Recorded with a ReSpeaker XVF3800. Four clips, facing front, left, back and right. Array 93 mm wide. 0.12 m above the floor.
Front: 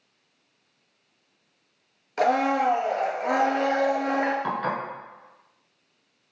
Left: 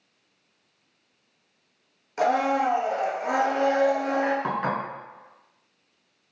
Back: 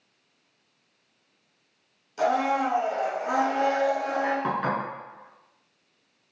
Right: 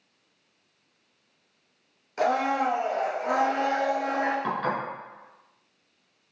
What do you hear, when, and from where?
2.2 s a blender: 5° left, 0.9 m
4.4 s dishes clattering: 130° left, 1.0 m